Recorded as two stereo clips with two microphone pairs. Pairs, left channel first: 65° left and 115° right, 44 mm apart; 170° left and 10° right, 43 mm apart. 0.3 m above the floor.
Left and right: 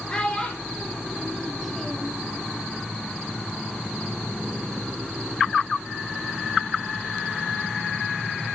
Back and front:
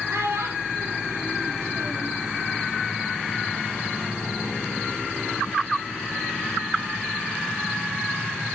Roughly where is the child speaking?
Ahead.